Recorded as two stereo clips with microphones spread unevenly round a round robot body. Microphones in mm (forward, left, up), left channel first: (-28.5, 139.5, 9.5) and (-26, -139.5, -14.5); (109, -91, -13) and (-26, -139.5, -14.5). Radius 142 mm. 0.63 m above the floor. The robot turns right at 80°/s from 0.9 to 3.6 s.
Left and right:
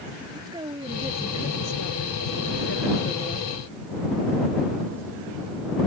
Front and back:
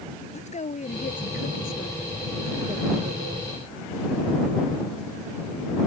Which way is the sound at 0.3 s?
15° right.